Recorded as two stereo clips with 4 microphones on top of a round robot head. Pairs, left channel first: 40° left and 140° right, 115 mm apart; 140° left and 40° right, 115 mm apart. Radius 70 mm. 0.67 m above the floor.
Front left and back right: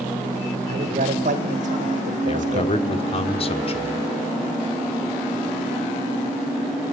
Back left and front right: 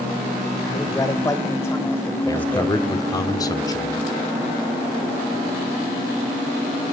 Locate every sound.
0.7 s a man speaking: 160° right, 3 m; by 3.3 s 140° right, 4 m
2.3 s a man speaking: 80° left, 1.7 m